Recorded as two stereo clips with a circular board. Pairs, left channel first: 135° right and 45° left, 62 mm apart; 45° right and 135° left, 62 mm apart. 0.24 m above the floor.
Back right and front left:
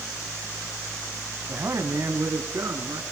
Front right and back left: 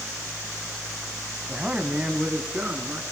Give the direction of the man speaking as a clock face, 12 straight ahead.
10 o'clock.